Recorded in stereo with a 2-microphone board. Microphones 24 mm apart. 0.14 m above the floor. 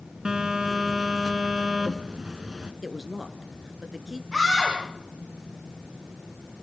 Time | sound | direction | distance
0.2 | a phone buzzing | 35° right (ahead or behind) | 2.0 m
2.8 | a woman speaking | 25° right (ahead or behind) | 1.9 m
4.3 | a scream | 20° right (ahead or behind) | 8.5 m